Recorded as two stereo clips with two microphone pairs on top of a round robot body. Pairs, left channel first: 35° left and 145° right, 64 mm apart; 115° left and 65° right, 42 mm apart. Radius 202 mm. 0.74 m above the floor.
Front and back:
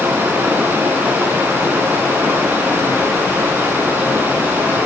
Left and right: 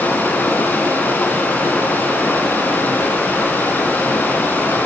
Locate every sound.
0.0 s running water: 155° left, 3 m